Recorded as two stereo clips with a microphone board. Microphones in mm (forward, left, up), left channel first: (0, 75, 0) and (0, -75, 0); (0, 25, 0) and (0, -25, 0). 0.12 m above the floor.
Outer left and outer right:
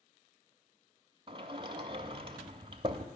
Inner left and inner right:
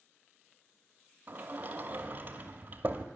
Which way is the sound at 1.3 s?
35° right (ahead or behind).